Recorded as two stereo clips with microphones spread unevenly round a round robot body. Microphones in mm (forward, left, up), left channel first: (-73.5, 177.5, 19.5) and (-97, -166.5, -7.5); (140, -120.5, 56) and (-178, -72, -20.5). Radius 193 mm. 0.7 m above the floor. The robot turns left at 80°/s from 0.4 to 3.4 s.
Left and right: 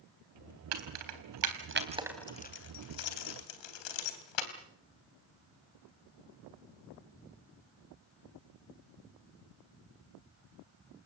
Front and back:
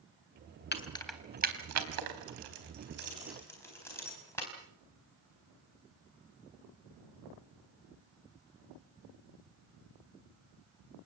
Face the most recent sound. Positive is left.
turn(degrees=75)